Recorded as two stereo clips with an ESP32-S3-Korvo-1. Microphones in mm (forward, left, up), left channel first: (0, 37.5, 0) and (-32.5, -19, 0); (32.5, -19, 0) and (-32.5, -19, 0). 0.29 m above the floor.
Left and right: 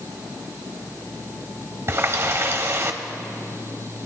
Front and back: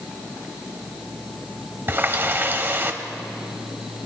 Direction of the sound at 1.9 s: 145° right.